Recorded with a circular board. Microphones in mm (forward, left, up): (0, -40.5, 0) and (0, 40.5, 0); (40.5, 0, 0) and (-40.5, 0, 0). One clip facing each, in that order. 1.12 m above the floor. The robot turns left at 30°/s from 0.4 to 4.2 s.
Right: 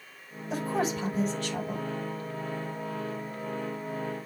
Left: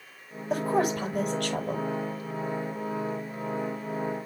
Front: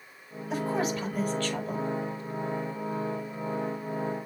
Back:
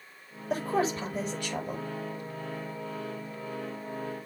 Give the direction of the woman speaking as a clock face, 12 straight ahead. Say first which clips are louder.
Left 4 dB, back 1 dB; 8 o'clock.